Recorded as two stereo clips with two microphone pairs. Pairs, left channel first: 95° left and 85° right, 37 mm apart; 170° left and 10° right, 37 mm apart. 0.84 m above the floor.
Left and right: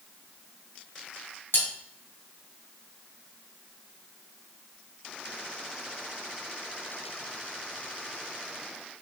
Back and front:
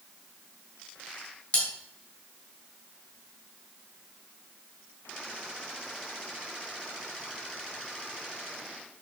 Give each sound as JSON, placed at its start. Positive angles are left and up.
{"t": 1.5, "sound": "cutlery clinking", "azimuth_deg": 115, "distance_m": 2.0}